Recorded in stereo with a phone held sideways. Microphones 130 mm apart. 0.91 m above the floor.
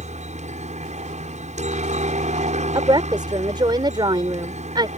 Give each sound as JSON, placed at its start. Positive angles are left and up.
{"t": 0.0, "sound": "a helicopter", "side_deg": -65}
{"t": 2.8, "sound": "a woman speaking", "side_deg": -35}